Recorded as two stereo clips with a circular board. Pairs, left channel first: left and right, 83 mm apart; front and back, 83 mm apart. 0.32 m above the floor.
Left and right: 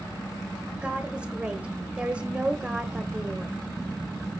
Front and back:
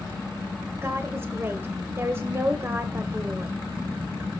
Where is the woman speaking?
155° right, 1.1 m.